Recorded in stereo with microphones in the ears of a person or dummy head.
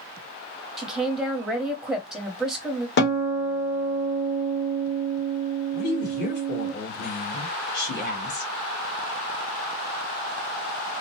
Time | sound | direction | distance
0.8 | a woman speaking | 5° right (ahead or behind) | 1.1 m
3.0 | a guitar | 50° left (ahead or behind) | 1.6 m
5.7 | a woman speaking | 55° left (ahead or behind) | 1.6 m